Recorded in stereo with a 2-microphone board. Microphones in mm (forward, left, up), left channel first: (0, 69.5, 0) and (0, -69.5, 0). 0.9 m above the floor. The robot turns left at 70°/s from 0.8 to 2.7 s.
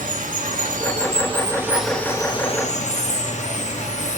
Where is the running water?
105° right, 1.1 m; by 4.2 s 120° left, 1.1 m.